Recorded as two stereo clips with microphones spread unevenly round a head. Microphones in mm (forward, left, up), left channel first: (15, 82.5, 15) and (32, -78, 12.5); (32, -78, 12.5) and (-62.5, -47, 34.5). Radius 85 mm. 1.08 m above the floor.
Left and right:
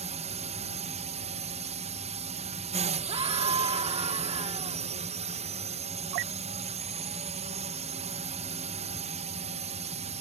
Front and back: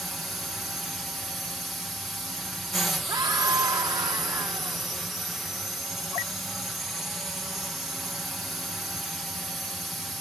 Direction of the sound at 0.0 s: 95° right.